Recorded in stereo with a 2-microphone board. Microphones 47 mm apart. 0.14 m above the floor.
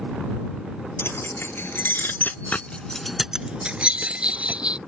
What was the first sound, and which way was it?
Keys jangling, 55° left (ahead or behind).